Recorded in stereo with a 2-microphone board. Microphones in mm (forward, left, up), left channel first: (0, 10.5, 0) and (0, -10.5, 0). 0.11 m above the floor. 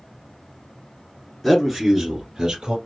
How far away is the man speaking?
About 1.5 m.